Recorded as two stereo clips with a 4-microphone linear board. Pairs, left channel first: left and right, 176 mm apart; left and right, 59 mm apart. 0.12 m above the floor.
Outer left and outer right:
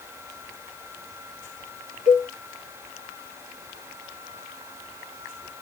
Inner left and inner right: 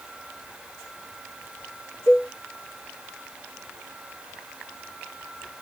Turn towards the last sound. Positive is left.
turn(degrees=45)  # may be behind; listen again after turning